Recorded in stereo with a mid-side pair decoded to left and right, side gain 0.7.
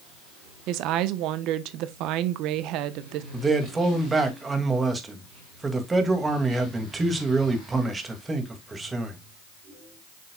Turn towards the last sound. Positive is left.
turn(degrees=-15)